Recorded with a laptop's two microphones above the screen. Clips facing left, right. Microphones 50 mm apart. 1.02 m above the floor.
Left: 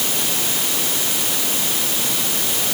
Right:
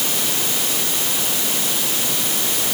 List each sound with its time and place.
Only background noise.